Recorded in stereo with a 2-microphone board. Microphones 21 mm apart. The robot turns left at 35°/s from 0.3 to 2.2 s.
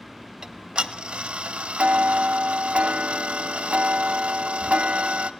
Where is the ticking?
35° right, 0.5 m; by 5.3 s 100° right, 0.5 m.